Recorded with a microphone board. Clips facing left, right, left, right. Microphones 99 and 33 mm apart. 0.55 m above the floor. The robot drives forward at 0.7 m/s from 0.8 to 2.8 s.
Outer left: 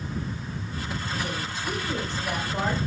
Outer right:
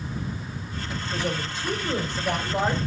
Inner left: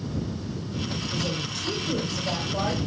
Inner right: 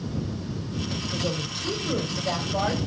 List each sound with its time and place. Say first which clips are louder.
1.1 s a woman speaking: outer right 5 dB, inner right 1 dB; 35° right (ahead or behind), 2.5 m; by 2.8 s 25° right (ahead or behind), 3 m